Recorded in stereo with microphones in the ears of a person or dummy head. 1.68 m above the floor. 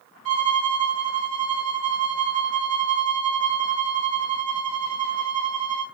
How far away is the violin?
About 1.6 m.